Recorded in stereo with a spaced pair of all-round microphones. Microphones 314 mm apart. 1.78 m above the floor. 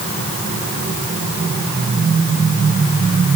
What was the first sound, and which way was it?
Only background noise.